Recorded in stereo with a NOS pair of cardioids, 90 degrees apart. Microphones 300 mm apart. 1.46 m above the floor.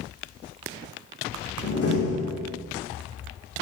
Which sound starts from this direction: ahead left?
A door slam, at 1.6 s.